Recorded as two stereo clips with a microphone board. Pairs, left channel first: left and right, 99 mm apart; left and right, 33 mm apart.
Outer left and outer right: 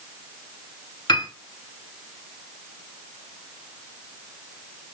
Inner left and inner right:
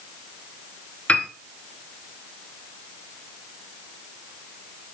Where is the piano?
45° left (ahead or behind), 0.5 m.